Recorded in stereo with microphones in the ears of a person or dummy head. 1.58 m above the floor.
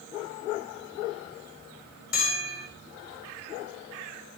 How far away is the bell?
About 6 m.